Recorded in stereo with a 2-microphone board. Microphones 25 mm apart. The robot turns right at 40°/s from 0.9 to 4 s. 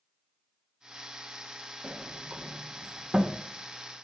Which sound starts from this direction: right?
A sliding door, at 1.8 s.